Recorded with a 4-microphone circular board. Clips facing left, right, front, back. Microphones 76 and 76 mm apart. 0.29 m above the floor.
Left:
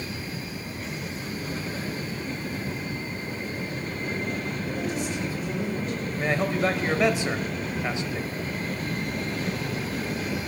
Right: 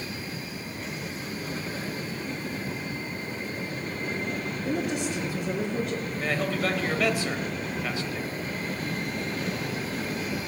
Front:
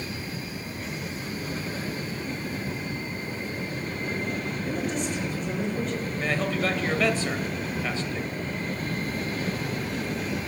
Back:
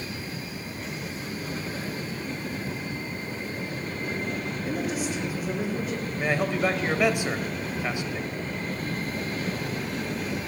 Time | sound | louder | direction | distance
4.7 | a woman speaking | right 3 dB, back 1 dB | 100° right | 3 m
6.2 | a man speaking | left 4 dB, back 2 dB | 130° left | 0.9 m